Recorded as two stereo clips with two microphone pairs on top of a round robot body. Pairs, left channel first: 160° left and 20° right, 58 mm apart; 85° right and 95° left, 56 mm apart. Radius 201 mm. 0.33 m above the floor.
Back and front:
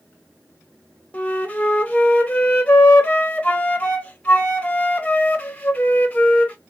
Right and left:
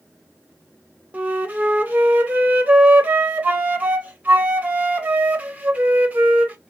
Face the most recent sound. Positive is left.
turn(degrees=125)